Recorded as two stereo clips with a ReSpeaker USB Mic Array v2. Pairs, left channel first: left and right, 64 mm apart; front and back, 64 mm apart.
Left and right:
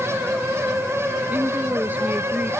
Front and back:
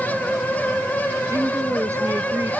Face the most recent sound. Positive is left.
turn(degrees=-150)